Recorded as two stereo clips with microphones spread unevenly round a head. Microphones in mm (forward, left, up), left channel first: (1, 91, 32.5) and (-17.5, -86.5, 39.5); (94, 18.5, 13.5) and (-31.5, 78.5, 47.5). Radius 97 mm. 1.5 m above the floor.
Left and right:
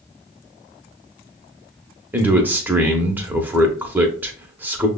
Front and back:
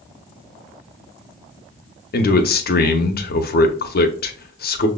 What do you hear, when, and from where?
2.1 s a man speaking: 15° right, 0.7 m